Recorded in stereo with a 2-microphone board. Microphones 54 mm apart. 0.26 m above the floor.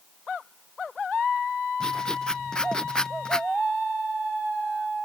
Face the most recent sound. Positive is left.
turn(degrees=15)  # may be behind; listen again after turning